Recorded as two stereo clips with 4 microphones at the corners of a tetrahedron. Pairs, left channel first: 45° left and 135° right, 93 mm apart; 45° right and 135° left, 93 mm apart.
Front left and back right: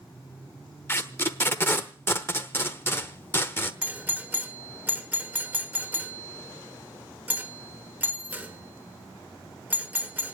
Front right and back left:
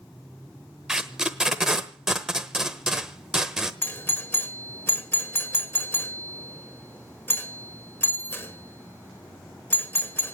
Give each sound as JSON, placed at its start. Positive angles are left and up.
{"t": 0.9, "sound": "tape being pulled", "azimuth_deg": 60, "distance_m": 1.0}
{"t": 3.8, "sound": "a doorbell", "azimuth_deg": -85, "distance_m": 1.3}